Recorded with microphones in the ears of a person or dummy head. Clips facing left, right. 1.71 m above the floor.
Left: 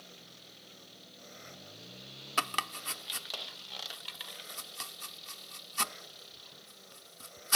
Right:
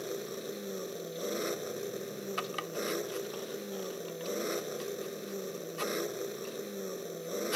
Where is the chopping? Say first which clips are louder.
Left 1 dB; 60° left (ahead or behind).